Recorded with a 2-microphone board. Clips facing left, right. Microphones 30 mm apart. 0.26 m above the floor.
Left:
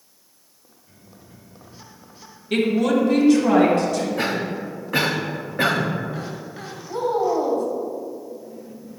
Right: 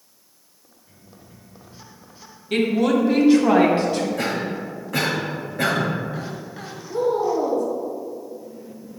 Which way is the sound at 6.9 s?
35° left (ahead or behind).